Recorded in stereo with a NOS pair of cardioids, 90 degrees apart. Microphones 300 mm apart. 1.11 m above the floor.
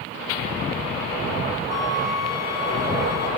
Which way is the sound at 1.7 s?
55° left.